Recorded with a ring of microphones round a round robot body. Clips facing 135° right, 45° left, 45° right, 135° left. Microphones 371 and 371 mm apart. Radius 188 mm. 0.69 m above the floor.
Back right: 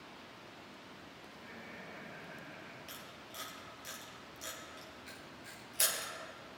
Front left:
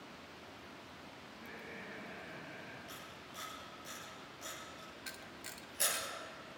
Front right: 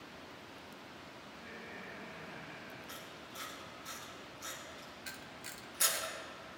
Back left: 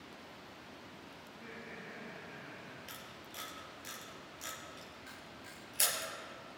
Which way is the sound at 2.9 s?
160° left.